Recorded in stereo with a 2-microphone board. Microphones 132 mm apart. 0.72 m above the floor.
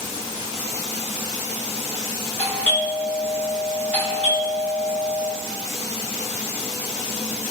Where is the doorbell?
10° left (ahead or behind), 1.5 m.